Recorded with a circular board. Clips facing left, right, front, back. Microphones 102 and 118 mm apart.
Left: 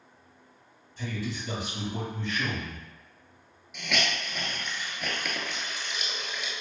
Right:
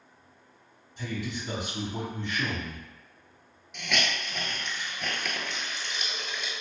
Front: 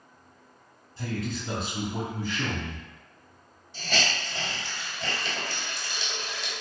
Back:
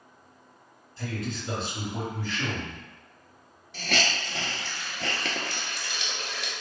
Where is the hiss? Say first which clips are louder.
Even, back 1 dB; straight behind, 0.5 m.